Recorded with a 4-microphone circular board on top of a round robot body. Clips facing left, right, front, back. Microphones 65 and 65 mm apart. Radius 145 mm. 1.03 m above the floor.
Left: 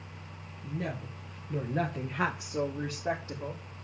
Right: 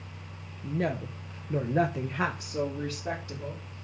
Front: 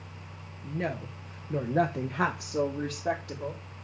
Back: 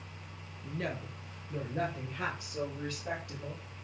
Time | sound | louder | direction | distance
0.6 | a woman speaking | right 6 dB, front 5 dB | 70° right | 1.8 m